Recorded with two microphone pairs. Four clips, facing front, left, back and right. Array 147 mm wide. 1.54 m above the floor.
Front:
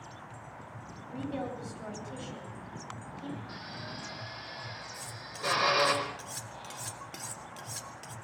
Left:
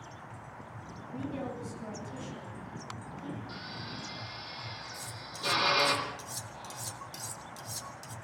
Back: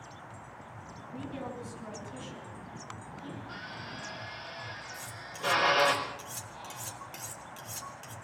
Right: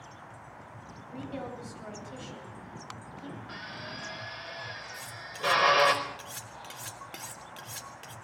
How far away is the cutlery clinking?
About 1.8 m.